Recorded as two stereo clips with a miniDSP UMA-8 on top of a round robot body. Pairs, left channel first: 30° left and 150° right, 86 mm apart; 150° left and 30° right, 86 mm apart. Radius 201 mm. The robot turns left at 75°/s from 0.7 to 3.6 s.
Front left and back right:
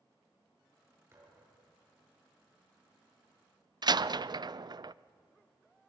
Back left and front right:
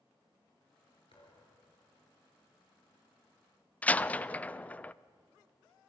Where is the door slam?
140° right, 0.6 m.